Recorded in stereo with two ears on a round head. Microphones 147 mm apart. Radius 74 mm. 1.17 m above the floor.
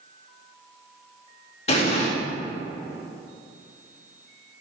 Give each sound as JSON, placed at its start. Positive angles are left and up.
{"t": 1.7, "sound": "an explosion", "side_deg": 40, "distance_m": 1.9}